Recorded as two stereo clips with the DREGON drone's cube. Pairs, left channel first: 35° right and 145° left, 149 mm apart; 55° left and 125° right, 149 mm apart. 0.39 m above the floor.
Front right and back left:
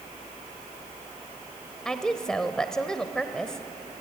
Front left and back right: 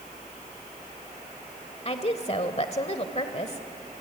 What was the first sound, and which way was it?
A woman speaking, 50° left.